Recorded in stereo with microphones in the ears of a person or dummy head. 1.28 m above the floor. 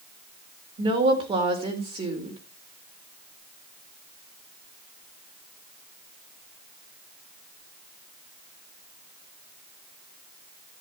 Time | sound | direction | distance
0.8 | a woman speaking | 25° right (ahead or behind) | 4 m